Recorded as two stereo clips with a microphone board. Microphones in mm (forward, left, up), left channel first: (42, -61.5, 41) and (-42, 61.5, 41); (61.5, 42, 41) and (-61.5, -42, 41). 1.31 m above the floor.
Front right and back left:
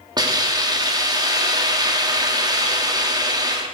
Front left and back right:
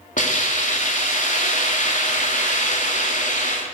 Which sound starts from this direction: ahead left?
A hiss, at 0.2 s.